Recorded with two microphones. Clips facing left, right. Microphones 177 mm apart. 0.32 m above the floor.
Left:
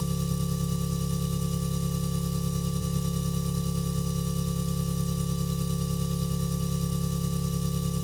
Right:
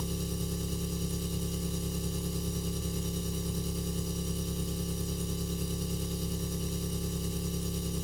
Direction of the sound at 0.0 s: 75° left (ahead or behind).